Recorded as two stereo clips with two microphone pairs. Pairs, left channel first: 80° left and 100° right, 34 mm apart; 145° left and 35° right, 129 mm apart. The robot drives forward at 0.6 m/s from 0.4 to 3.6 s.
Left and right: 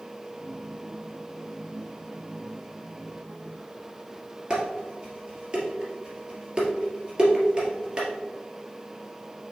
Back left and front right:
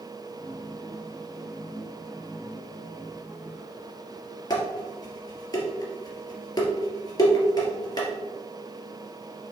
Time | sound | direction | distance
4.5 | dishes clattering | 160° right | 2 m